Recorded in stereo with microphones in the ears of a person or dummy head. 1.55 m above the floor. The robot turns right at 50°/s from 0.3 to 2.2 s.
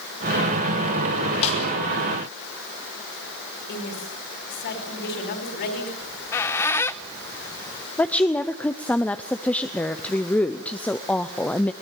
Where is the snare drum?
35° left (ahead or behind), 6 m; by 1.6 s 40° left (ahead or behind), 6 m.